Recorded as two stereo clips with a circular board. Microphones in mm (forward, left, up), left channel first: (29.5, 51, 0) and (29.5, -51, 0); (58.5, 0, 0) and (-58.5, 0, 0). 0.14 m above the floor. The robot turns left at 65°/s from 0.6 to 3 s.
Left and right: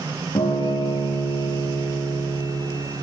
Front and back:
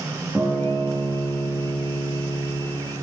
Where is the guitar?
105° left, 6 m; by 2.8 s 35° right, 6 m.